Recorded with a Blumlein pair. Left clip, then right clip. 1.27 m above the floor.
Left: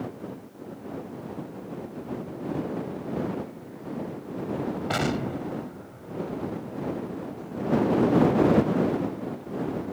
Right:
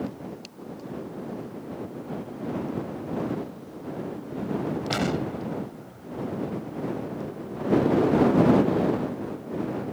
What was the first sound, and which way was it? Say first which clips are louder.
An explosion: left 1 dB; 10° left.